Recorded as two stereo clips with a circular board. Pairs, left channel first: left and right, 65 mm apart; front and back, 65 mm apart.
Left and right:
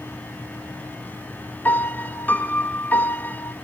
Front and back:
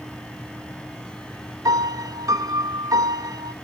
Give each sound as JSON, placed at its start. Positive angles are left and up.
{"t": 1.6, "sound": "a piano", "azimuth_deg": 150, "distance_m": 0.6}